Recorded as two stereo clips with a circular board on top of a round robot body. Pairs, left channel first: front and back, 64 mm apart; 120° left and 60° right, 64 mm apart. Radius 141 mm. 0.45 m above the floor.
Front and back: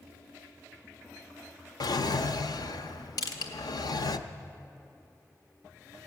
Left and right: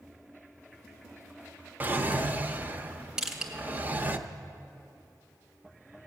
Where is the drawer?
5° left, 0.6 m.